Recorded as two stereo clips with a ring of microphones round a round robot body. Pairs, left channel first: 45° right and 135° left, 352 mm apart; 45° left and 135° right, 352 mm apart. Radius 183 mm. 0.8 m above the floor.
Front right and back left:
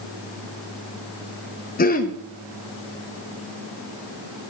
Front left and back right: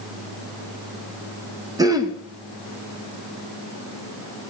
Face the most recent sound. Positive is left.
turn(degrees=-70)